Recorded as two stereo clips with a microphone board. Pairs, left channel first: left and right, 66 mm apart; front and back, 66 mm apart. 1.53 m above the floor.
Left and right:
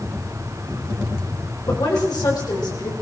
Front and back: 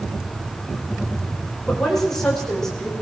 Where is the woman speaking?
85° left, 6.5 m; by 2.9 s 80° left, 7.5 m.